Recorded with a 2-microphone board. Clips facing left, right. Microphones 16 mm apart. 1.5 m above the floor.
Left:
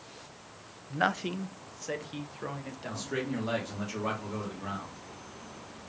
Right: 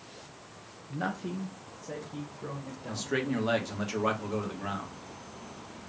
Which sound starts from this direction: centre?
A man speaking, at 2.9 s.